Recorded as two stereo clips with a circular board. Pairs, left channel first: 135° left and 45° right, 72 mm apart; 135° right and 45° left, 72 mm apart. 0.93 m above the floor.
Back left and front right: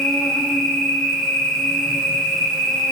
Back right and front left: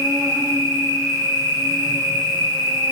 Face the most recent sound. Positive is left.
turn(degrees=45)